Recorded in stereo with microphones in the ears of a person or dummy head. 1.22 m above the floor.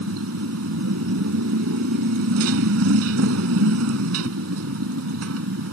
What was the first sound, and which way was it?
A motorcycle, 75° right (ahead or behind).